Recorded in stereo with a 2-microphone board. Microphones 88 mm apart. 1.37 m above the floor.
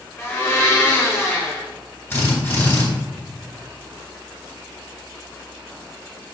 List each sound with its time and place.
0.2 s a blender: 25° left (ahead or behind), 1.6 m
2.1 s a drill: 25° left (ahead or behind), 3 m